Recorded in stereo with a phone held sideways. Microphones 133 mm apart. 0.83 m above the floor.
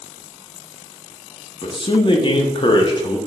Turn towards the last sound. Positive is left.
turn(degrees=40)  # may be behind; listen again after turning